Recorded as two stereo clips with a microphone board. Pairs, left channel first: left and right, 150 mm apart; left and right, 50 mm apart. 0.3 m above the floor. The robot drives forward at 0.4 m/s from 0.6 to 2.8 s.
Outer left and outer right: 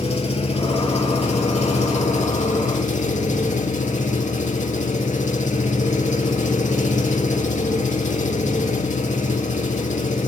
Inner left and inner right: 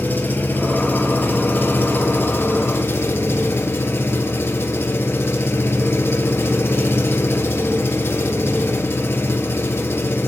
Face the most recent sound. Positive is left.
turn(degrees=55)  # may be behind; listen again after turning